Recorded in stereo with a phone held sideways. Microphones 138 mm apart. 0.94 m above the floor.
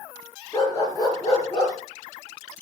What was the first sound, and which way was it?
A dog barking, 25° left (ahead or behind).